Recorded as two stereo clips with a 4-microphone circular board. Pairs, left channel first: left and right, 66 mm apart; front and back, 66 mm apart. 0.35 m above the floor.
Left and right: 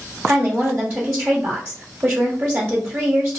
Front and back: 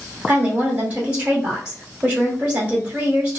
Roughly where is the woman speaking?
Behind right.